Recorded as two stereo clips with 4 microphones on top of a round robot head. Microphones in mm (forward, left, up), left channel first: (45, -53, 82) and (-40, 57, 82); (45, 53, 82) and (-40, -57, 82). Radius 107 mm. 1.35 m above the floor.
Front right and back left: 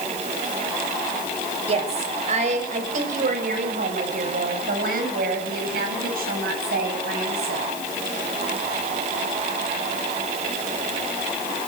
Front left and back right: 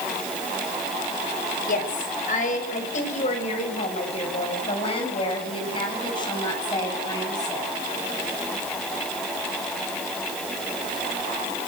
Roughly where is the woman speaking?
Left.